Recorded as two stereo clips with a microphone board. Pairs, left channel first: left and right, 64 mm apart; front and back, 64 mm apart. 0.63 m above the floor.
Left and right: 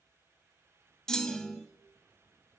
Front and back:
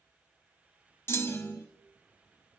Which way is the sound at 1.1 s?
10° left.